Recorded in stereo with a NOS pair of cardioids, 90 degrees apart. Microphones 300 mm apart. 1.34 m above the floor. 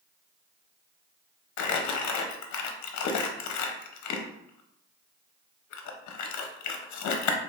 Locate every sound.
1.6 s crumpling: 65° left, 0.7 m